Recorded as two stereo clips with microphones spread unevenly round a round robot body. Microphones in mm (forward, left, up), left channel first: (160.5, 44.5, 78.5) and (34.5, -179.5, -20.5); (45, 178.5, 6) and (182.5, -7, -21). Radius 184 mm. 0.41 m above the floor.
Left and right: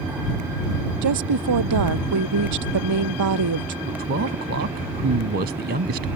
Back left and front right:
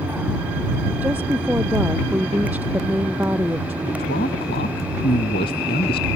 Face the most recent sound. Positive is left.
turn(degrees=-170)